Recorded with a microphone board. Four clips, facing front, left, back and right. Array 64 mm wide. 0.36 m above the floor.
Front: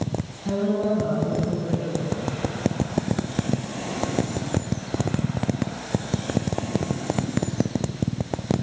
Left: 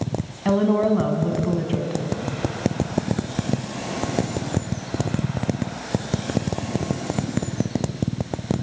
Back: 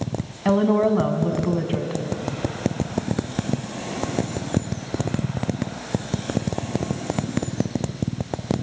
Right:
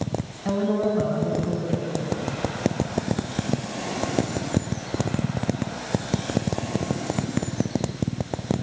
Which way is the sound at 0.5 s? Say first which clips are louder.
Left 4 dB, back 5 dB; 155° left.